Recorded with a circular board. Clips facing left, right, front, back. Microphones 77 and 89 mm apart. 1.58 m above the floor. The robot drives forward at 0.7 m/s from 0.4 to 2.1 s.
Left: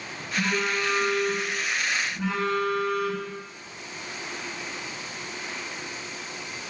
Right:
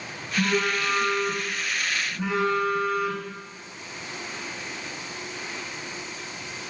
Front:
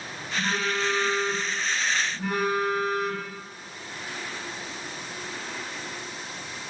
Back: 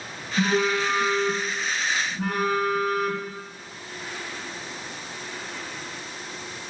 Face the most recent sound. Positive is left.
turn(degrees=-170)